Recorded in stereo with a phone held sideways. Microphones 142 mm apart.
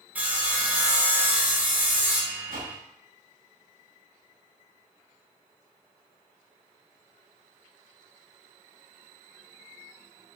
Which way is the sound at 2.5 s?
85° right.